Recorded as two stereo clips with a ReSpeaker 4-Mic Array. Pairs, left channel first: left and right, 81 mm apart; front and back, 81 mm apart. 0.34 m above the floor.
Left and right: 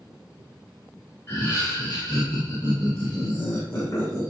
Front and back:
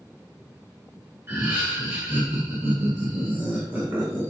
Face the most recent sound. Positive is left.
turn(degrees=130)